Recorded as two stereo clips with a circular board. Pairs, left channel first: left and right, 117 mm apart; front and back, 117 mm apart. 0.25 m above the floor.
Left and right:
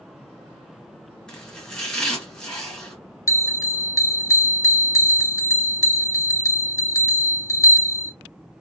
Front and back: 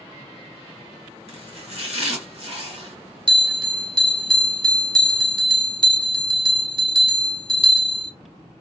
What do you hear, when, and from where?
1.3 s chopping: 170° left, 2.5 m
3.3 s a bell: 150° left, 0.9 m